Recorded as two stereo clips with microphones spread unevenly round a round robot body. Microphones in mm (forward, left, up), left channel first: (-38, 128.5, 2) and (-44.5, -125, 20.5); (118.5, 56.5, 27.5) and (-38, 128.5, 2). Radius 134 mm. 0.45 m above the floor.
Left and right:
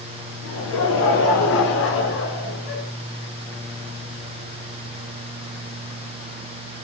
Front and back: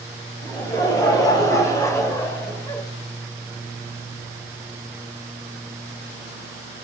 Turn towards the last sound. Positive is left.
turn(degrees=55)